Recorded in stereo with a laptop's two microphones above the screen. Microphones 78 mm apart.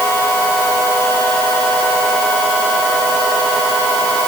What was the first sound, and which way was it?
Only background noise.